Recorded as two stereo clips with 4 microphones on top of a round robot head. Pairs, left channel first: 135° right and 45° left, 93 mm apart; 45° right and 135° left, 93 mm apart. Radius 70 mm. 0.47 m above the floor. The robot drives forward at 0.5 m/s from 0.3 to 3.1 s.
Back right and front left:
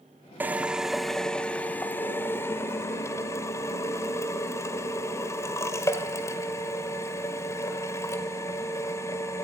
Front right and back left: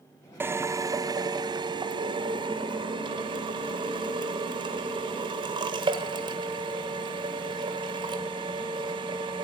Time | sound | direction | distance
0.4 | a drill | 95° left | 0.7 m